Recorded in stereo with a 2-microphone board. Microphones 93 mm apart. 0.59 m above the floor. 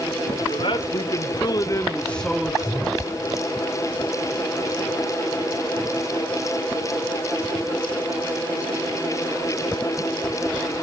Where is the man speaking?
70° left (ahead or behind), 2.5 m; by 3.1 s 30° right (ahead or behind), 1.6 m.